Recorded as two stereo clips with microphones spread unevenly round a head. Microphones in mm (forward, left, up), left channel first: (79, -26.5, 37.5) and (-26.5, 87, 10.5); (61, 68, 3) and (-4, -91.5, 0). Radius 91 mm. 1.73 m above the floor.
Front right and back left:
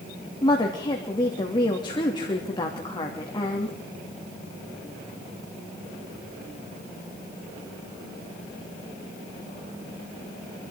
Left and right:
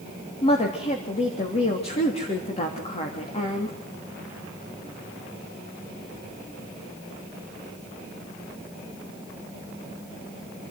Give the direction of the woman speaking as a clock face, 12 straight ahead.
12 o'clock.